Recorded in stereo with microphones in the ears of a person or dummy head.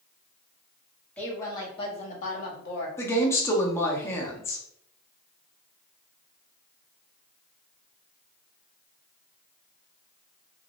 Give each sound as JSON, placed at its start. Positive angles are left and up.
{"t": 1.2, "sound": "a woman speaking", "side_deg": 10, "distance_m": 1.3}
{"t": 3.0, "sound": "a woman speaking", "side_deg": 15, "distance_m": 0.8}